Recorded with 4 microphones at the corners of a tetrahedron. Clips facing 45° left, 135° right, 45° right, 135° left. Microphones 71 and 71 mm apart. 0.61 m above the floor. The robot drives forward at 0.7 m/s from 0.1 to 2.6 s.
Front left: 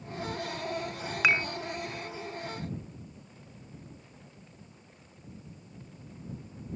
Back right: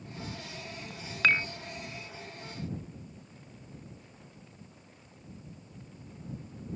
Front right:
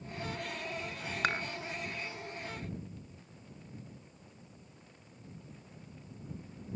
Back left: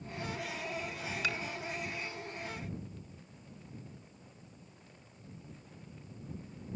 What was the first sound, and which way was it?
Dishes clattering, 30° right.